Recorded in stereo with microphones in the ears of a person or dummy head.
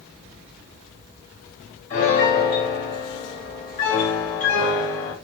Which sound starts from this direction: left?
A piano, at 1.9 s.